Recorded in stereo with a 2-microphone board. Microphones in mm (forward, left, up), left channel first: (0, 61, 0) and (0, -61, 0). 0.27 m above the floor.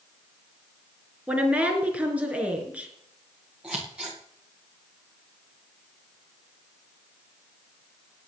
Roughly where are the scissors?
Centre.